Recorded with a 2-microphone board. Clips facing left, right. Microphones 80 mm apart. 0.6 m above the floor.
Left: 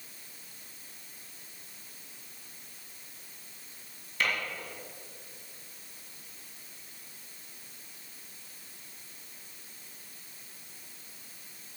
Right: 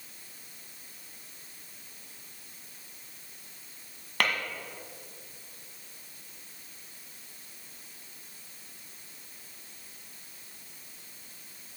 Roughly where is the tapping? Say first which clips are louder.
Right 2 dB; right.